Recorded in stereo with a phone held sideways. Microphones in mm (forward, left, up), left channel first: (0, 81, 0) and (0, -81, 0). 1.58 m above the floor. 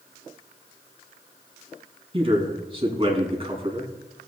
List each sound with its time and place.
2.1 s a man speaking: 35° right (ahead or behind), 2.5 m